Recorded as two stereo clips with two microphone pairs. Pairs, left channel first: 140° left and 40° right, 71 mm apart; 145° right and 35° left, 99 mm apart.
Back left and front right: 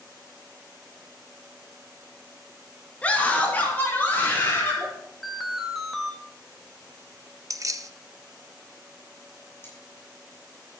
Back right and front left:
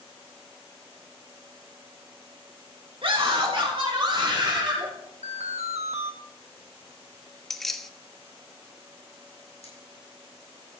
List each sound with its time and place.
3.0 s a scream: 70° left, 2 m; by 4.9 s 80° left, 4.5 m
5.2 s an alarm: 50° left, 1.2 m
7.5 s keys jangling: 60° right, 0.6 m
9.6 s cutlery clinking: 155° right, 6.5 m